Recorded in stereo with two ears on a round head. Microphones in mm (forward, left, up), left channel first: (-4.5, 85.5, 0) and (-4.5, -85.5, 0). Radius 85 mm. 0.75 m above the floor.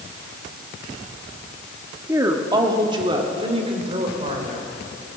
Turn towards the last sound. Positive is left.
turn(degrees=-35)  # may be behind; listen again after turning